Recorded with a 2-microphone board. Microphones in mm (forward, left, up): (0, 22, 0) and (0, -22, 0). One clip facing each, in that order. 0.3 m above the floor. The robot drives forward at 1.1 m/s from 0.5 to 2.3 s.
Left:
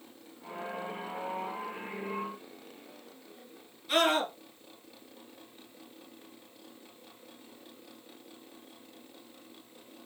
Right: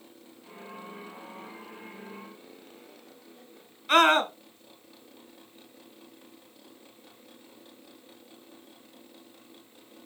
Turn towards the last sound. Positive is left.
turn(degrees=-50)  # may be behind; listen again after turning